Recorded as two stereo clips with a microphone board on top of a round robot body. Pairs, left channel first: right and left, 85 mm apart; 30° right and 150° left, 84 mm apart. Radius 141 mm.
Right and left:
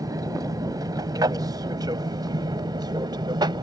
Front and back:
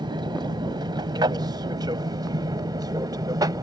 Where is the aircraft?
130° left; by 3.6 s 115° left.